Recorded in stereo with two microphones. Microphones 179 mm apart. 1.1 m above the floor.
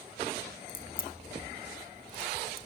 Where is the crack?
55° left (ahead or behind), 1.1 m.